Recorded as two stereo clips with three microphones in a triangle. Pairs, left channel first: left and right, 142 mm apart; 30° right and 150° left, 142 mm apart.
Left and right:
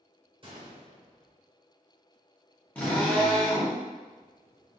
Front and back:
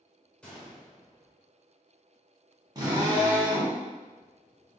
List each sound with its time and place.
0.4 s a gunshot: 110° right, 0.9 m
2.8 s a drill: 160° left, 1.0 m